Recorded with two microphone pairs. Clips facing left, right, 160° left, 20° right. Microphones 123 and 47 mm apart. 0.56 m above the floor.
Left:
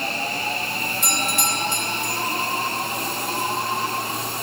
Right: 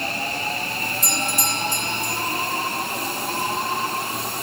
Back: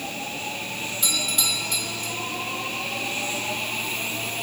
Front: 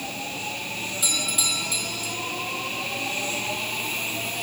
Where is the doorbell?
65° left, 6.5 m.